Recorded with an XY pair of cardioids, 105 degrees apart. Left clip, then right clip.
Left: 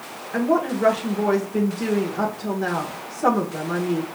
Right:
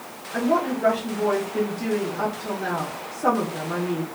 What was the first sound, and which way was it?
A woman speaking, 65° left.